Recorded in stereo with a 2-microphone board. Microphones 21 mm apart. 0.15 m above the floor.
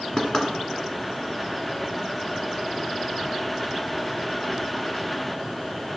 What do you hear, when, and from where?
0.2 s knocking: 25° left (ahead or behind), 1.2 m